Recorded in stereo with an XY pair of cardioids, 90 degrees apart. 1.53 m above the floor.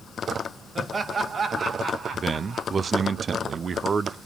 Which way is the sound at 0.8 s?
40° right.